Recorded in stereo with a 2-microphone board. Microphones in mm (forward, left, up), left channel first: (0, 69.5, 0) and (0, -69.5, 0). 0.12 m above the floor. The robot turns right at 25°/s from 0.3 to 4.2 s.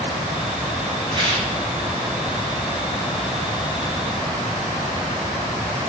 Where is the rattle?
35° right (ahead or behind), 1.2 m; by 1.5 s 45° right (ahead or behind), 1.2 m.